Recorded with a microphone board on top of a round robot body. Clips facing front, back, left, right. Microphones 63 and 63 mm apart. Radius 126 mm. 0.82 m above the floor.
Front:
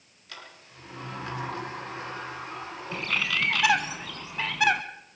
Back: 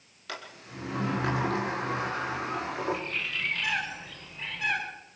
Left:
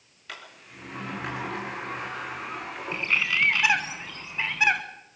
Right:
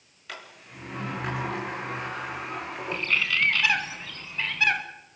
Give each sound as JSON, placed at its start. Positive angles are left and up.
{"t": 0.3, "sound": "a sliding door", "azimuth_deg": 180, "distance_m": 5.5}
{"t": 2.9, "sound": "a bird", "azimuth_deg": 15, "distance_m": 1.3}